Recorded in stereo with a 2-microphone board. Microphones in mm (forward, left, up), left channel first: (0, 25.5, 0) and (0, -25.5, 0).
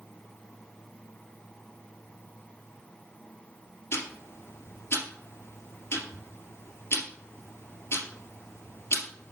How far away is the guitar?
I don't hear a guitar.